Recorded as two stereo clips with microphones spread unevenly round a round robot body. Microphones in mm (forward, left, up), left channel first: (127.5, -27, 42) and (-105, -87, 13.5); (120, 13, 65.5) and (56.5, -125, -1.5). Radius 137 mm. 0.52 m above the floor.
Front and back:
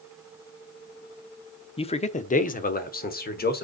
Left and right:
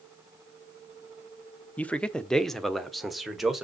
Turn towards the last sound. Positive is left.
turn(degrees=-35)